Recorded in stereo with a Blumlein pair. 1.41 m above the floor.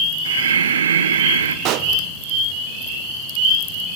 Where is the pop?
40° right, 1.0 m.